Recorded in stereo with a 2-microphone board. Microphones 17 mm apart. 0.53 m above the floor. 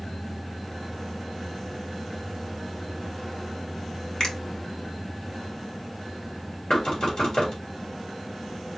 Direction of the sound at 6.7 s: 55° left (ahead or behind).